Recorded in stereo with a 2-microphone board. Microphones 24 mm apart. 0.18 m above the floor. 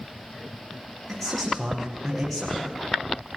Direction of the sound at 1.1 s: Centre (ahead or behind).